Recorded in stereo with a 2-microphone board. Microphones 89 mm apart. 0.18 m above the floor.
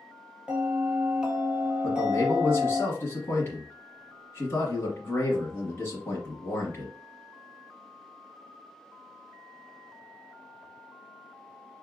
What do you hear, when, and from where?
0.5 s a bell: 10° right (ahead or behind), 1.3 m
1.8 s a man speaking: 30° left (ahead or behind), 1.4 m